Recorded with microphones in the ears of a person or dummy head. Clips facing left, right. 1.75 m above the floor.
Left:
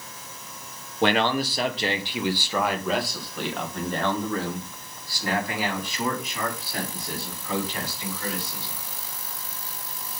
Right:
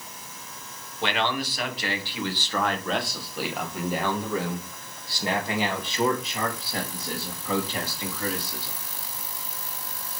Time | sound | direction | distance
1.0 | a man speaking | 45° left (ahead or behind) | 1.4 m